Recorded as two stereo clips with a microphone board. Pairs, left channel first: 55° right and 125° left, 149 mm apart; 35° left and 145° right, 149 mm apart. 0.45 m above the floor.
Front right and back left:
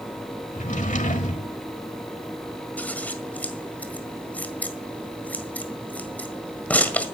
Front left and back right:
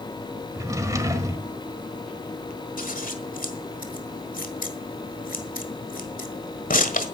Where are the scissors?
25° left, 1.6 m.